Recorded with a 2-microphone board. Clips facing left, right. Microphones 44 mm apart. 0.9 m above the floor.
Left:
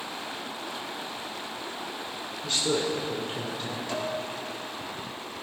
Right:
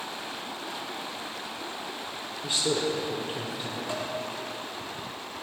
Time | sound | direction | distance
2.4 | a man speaking | 10° right (ahead or behind) | 2.5 m
3.9 | dishes clattering | 25° right (ahead or behind) | 4 m